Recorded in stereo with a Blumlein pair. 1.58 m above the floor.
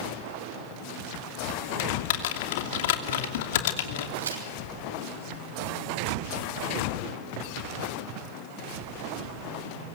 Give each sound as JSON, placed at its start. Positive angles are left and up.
{"t": 1.8, "sound": "typing on a keyboard", "azimuth_deg": 55, "distance_m": 2.5}
{"t": 4.2, "sound": "a crack", "azimuth_deg": -70, "distance_m": 6.5}